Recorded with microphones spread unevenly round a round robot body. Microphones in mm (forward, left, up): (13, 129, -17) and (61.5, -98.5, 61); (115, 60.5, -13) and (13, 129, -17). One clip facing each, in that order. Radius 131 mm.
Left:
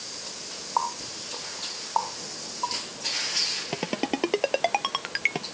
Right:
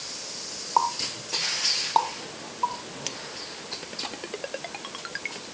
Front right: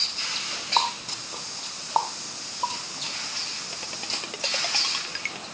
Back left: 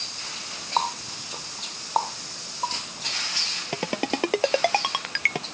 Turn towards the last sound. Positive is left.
turn(degrees=125)